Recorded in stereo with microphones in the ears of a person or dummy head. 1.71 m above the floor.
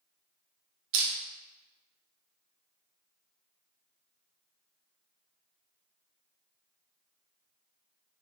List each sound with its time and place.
0.9 s crushing: 75° right (ahead or behind), 1.2 m